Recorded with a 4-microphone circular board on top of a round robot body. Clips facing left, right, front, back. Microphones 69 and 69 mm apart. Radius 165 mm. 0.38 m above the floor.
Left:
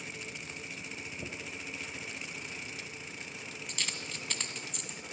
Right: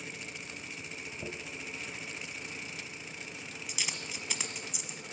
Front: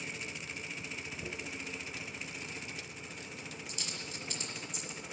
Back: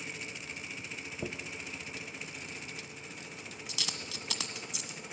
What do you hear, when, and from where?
1.2 s a dropped coin: 175° right, 1.3 m